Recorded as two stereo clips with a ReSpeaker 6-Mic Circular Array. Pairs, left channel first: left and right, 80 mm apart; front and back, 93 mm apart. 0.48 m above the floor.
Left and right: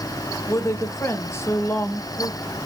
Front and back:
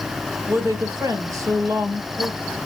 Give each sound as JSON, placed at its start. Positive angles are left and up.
{"t": 0.5, "sound": "a woman speaking", "azimuth_deg": 130, "distance_m": 2.0}